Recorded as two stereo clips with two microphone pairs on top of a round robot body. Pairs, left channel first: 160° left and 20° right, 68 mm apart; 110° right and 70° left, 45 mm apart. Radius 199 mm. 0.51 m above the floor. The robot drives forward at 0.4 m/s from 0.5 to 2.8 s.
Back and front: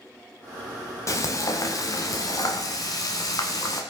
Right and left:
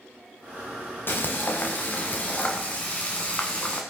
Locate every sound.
1.1 s frying: 155° right, 0.7 m; by 3.8 s 165° right, 1.3 m